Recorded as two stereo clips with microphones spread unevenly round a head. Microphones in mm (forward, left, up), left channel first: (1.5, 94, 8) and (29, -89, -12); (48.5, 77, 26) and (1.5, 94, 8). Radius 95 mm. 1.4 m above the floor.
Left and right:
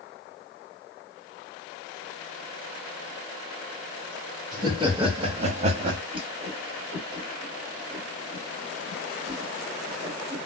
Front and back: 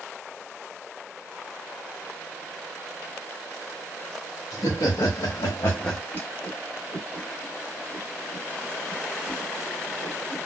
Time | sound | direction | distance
4.5 | laughter | 15° right | 1.5 m
6.1 | a whoosh | 20° right | 1.7 m